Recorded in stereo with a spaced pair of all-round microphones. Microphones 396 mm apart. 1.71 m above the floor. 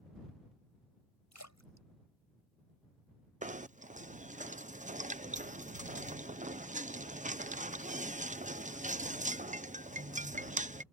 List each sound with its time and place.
1.3 s a splash: 45° left (ahead or behind)
3.4 s knocking: 20° right (ahead or behind)